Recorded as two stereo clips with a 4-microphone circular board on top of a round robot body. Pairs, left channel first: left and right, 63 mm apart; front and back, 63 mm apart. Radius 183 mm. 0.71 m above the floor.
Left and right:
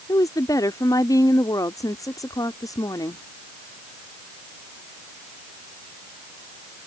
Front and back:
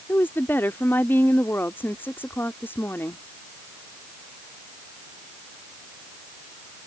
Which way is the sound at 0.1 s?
60° left.